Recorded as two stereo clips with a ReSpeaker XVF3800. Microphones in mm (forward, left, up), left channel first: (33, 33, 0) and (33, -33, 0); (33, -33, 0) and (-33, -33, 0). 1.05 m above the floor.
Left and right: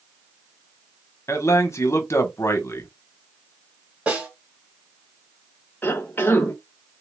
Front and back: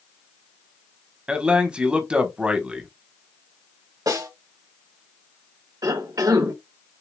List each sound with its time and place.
1.3 s a man speaking: 110° left, 1.0 m
4.1 s a snare drum: 160° right, 3 m
5.8 s a cough: 150° left, 1.0 m